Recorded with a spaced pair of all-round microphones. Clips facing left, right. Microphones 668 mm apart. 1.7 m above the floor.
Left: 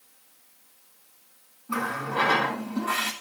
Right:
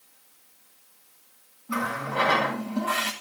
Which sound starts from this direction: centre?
A running tap, at 1.7 s.